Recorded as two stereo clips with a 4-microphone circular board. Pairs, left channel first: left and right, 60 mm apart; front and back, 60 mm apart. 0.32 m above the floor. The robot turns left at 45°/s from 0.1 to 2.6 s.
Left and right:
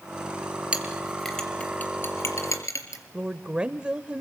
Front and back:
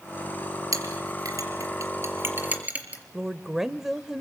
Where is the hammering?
I don't hear hammering.